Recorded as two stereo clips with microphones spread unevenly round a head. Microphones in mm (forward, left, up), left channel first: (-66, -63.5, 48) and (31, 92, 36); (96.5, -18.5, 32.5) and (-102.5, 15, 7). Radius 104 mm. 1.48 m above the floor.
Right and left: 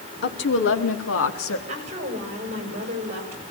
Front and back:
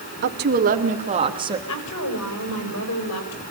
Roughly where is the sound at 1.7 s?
Ahead.